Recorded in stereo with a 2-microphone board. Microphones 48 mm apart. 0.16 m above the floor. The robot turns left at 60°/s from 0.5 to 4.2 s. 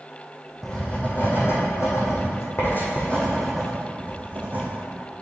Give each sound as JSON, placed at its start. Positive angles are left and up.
{"t": 0.6, "sound": "writing", "side_deg": 10, "distance_m": 2.5}